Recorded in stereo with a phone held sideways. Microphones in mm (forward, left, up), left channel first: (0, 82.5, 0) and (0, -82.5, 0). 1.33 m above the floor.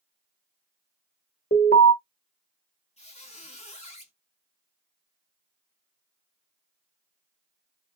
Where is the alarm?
70° left (ahead or behind), 1.0 m.